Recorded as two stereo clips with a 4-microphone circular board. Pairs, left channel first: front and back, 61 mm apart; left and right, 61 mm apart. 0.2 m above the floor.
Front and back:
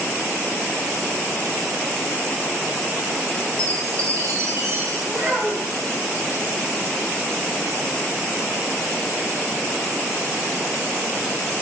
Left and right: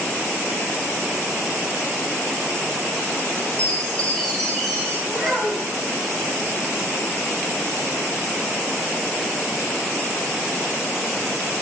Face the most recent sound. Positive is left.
turn(degrees=175)